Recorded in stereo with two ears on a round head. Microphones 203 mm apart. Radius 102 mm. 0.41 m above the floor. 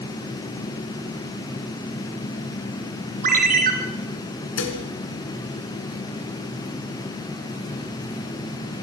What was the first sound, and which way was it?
A ringtone, 40° right (ahead or behind).